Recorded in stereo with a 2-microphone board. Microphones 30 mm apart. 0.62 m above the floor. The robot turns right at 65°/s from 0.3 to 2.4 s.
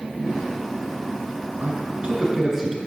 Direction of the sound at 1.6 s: 55° right (ahead or behind).